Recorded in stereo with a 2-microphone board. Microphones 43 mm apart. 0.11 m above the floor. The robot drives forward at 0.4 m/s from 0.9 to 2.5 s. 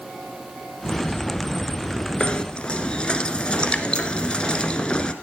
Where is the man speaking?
No man speaking in this recording.